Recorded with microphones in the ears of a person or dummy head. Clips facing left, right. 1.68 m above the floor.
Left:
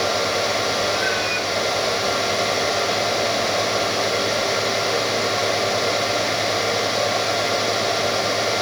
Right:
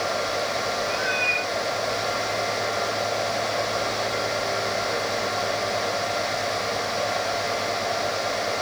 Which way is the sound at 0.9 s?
10° left (ahead or behind).